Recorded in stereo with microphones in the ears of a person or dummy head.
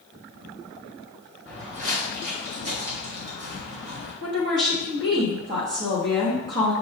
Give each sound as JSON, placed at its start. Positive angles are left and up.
{"t": 1.4, "sound": "footsteps", "side_deg": -35, "distance_m": 1.5}
{"t": 4.2, "sound": "a woman speaking", "side_deg": -50, "distance_m": 1.2}